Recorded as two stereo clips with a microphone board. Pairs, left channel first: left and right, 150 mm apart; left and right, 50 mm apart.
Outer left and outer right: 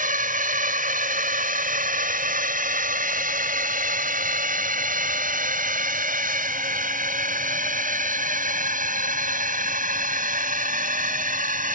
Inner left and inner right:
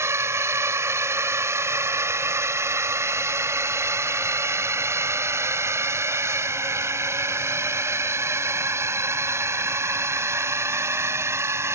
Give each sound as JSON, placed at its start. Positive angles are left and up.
{"t": 0.0, "sound": "a drone", "side_deg": -65}